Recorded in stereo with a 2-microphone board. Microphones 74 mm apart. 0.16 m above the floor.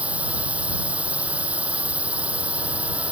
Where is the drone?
20° right (ahead or behind).